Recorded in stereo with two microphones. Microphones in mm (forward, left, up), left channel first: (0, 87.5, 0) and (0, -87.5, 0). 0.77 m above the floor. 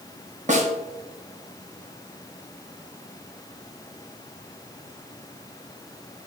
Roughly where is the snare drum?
Right.